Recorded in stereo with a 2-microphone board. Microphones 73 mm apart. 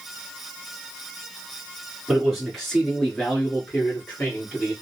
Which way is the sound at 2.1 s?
10° right (ahead or behind).